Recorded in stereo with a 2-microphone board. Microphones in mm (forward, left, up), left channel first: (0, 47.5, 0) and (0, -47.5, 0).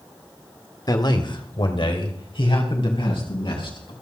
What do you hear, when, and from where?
0.9 s a man speaking: 45° left (ahead or behind), 1.5 m; by 3.9 s 70° left (ahead or behind), 5.5 m